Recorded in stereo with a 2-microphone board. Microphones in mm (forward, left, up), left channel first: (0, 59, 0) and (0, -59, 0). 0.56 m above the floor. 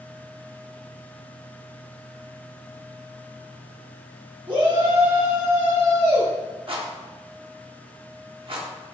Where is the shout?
40° right (ahead or behind), 0.9 m; by 6.3 s 70° right (ahead or behind), 2 m.